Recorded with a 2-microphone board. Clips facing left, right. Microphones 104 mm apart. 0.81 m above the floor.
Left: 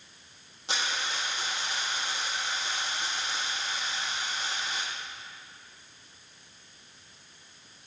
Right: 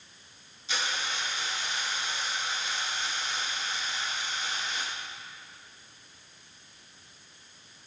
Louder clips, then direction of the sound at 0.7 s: Left 1 dB; 65° left (ahead or behind).